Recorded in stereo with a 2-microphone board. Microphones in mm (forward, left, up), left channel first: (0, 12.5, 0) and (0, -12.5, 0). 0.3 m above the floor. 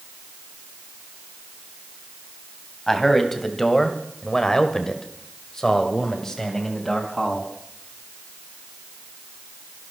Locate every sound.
2.9 s a man speaking: 10° left (ahead or behind), 2.5 m